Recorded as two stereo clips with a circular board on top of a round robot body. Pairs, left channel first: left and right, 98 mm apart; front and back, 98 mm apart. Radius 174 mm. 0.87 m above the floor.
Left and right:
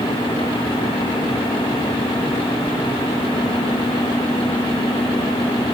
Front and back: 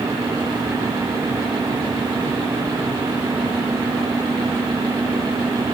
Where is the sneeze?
No sneeze in this recording.